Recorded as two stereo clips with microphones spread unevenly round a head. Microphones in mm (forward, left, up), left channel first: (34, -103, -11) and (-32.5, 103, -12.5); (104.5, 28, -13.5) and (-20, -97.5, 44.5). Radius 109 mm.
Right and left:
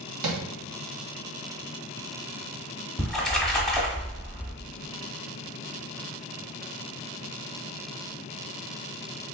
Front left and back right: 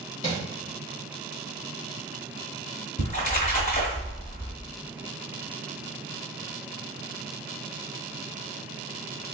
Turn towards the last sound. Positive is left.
turn(degrees=15)